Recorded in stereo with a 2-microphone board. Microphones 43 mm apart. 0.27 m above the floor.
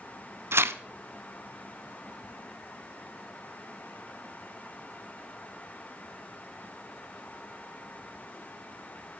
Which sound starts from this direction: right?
Tearing paper, at 0.5 s.